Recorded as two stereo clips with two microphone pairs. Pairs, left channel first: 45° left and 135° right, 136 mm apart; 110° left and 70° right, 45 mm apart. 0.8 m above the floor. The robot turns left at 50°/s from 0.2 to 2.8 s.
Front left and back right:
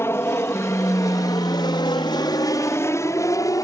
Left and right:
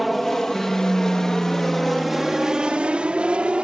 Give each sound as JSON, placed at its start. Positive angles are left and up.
{"t": 0.0, "sound": "an aircraft", "azimuth_deg": 20}